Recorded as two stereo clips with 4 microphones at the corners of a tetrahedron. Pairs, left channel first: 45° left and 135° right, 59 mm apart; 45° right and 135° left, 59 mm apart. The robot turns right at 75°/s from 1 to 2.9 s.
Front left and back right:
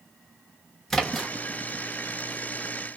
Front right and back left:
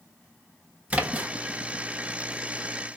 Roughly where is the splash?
Behind left.